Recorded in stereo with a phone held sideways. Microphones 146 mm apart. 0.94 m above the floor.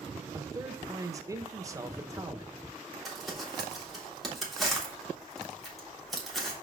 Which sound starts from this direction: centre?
Crumpling, at 3.0 s.